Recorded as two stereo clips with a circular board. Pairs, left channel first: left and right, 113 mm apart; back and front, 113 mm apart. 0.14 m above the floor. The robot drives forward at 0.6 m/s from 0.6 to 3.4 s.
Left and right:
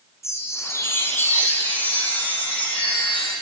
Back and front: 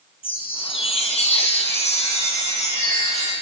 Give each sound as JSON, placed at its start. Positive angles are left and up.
{"t": 0.2, "sound": "a chime", "azimuth_deg": 150, "distance_m": 0.9}